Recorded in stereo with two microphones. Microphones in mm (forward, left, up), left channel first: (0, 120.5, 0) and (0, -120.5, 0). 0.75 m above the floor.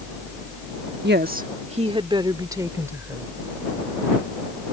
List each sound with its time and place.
1.0 s a woman speaking: 45° right (ahead or behind); by 3.3 s 10° right (ahead or behind)